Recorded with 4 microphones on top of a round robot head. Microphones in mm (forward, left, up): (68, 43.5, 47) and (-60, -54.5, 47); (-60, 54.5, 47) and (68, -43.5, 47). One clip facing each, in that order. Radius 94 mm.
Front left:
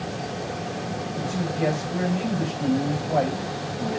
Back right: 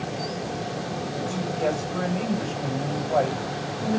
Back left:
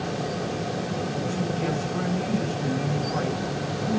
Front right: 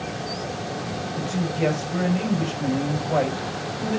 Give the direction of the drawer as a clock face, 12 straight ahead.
I don't hear a drawer.